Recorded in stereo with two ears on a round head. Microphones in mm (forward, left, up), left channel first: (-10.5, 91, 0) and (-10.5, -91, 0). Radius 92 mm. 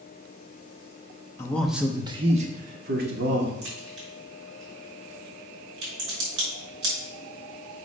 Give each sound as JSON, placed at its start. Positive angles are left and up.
{"t": 1.4, "sound": "a man speaking", "side_deg": 15, "distance_m": 1.1}
{"t": 3.6, "sound": "a crack", "side_deg": -60, "distance_m": 4.5}